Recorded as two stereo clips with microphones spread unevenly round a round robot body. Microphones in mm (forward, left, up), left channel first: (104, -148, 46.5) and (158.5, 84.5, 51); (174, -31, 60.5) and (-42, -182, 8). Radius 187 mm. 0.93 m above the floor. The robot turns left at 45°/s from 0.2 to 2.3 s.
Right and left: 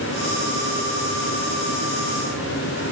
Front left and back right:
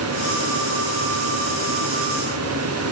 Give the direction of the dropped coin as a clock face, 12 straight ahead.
No dropped coin in this recording.